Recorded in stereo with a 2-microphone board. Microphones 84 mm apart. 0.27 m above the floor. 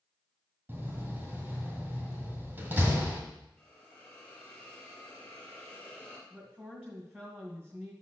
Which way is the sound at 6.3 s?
15° right (ahead or behind).